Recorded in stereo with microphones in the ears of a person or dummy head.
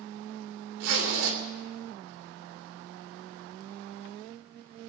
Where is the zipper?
65° right (ahead or behind), 3 m.